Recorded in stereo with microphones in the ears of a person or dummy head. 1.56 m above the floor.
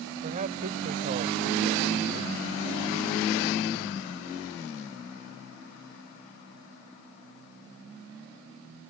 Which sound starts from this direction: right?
A man speaking, at 0.2 s.